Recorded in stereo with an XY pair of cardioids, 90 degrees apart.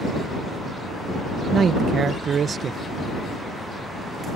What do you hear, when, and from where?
1.5 s a man speaking: 55° right